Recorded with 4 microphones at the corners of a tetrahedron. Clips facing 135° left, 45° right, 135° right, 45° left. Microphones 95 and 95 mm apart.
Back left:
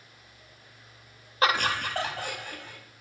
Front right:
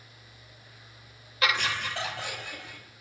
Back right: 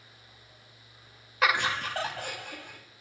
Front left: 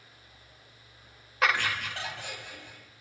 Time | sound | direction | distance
1.4 | laughter | 135° left | 0.6 m